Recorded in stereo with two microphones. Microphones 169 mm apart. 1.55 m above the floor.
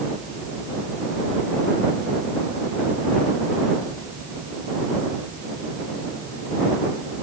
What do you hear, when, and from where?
Only background noise.